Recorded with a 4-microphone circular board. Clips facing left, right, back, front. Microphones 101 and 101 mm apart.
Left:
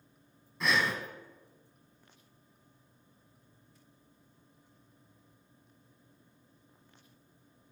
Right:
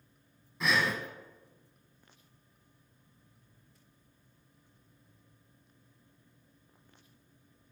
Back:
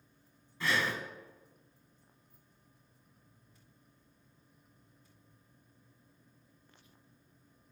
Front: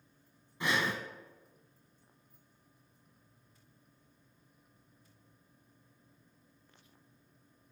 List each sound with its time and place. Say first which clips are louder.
0.6 s breathing: even, even; straight ahead, 0.9 m